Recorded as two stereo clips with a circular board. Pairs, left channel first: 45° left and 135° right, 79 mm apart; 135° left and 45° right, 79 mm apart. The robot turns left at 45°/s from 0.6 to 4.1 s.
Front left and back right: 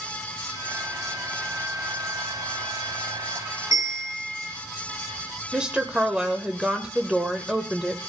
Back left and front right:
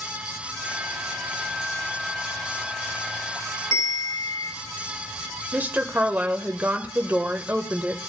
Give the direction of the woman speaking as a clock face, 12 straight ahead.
2 o'clock.